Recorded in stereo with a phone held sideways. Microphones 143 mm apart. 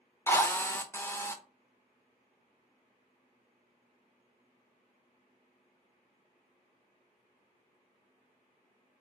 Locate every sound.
0.3 s a drill: 15° left (ahead or behind), 0.6 m